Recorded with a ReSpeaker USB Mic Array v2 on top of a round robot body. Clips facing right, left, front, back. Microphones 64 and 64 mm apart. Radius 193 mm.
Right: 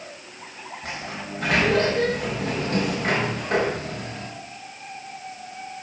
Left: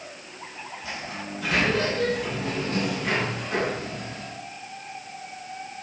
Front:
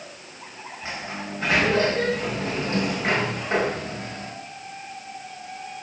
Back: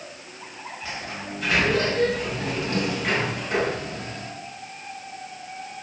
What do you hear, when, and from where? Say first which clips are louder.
0.8 s a sliding door: right 2 dB, front 2 dB; 55° right, 4.5 m